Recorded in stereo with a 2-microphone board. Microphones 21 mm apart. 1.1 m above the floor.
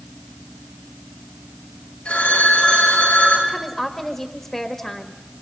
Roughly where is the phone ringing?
Left.